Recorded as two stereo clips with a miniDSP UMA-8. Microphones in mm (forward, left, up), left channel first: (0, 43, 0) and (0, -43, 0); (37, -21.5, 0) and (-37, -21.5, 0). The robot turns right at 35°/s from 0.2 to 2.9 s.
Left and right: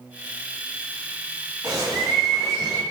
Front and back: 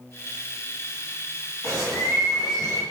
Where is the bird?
55° right, 1.7 m; by 2.8 s 15° right, 1.7 m.